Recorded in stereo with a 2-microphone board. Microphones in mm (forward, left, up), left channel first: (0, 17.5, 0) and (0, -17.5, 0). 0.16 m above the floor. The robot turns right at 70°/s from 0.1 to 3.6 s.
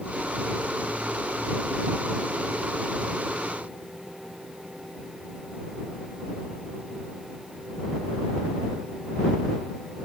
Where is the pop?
I don't hear a pop.